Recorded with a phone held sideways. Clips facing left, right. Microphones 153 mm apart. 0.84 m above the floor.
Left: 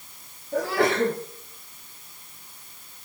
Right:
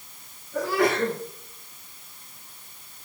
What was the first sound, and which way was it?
A sneeze, 75° left (ahead or behind).